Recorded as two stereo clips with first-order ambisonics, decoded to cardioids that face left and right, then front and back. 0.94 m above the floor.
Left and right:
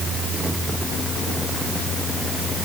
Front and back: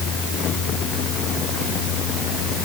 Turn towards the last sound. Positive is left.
No sound to turn to.